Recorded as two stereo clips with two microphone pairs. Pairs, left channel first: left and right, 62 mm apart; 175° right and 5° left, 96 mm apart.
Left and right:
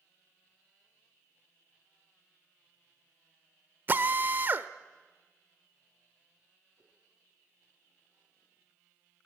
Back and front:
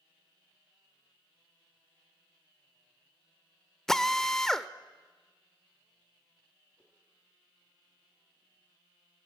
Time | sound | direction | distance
3.9 | a drill | 100° right | 0.8 m
6.8 | a whoosh | 100° right | 4 m